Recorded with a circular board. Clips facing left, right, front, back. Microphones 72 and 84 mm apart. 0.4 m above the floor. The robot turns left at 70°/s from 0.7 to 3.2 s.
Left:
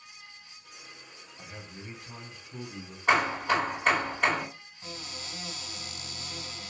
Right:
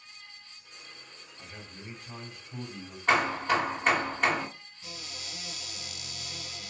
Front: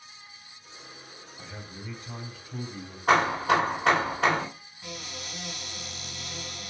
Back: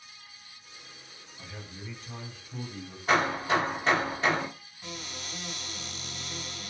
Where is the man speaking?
40° left, 2.5 m; by 3.0 s 70° right, 2.5 m.